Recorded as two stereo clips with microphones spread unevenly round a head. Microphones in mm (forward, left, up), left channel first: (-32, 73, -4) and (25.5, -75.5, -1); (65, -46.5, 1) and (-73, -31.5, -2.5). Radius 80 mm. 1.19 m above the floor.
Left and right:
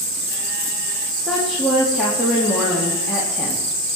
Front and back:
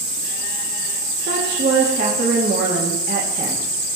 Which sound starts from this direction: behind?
A woman speaking, at 1.2 s.